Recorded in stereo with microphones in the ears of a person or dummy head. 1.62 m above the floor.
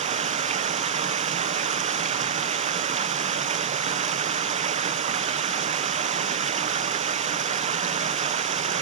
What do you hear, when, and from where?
0.0 s running water: 40° right (ahead or behind), 0.8 m